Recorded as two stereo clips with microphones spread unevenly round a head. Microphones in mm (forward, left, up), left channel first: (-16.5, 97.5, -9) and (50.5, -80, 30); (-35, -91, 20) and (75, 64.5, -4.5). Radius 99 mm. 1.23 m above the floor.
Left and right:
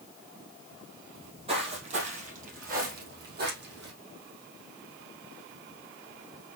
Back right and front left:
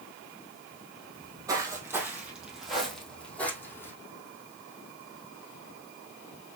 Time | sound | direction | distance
1.1 | footsteps | 15° right | 2.5 m